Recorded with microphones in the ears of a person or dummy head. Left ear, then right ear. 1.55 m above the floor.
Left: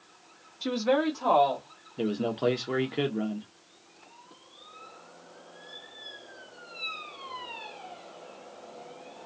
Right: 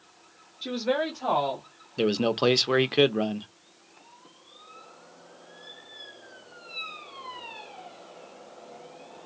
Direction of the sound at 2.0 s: 40° right (ahead or behind).